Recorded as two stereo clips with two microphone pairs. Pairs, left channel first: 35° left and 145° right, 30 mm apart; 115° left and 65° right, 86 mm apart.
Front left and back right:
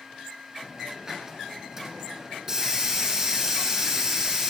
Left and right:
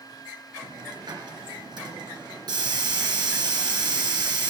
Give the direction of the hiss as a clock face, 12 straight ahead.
3 o'clock.